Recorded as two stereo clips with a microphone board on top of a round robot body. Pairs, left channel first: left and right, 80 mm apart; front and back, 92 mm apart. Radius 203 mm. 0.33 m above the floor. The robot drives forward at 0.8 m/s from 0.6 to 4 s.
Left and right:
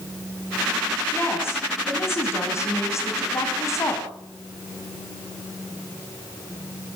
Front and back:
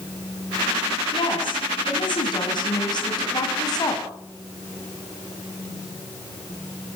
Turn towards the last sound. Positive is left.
turn(degrees=45)